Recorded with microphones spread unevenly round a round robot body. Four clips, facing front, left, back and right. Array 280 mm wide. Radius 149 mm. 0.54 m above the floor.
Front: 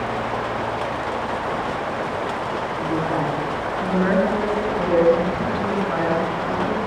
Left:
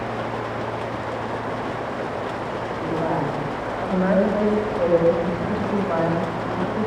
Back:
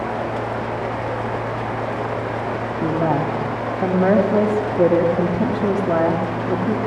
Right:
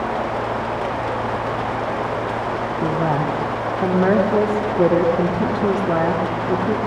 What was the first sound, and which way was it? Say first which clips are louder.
A woman speaking: right 3 dB, back 4 dB; 145° right.